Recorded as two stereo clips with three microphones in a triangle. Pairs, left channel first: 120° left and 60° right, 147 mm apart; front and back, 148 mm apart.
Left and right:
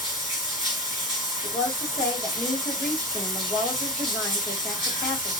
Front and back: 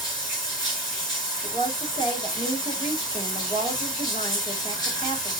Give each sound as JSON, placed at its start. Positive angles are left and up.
{"t": 0.0, "sound": "running water", "azimuth_deg": 60, "distance_m": 4.0}
{"t": 1.4, "sound": "a woman speaking", "azimuth_deg": 45, "distance_m": 2.0}